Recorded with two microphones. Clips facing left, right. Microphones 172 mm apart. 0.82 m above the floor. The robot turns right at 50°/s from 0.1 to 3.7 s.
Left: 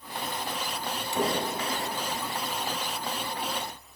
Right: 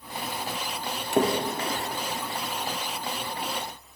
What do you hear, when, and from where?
1.1 s a splash: 70° right (ahead or behind), 1.1 m; by 1.8 s 40° right (ahead or behind), 1.1 m